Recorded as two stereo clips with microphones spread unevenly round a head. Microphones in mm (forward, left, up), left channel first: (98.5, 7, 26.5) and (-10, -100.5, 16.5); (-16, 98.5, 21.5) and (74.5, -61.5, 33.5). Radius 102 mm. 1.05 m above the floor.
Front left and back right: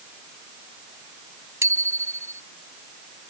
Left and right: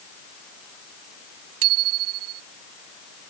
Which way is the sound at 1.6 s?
60° right.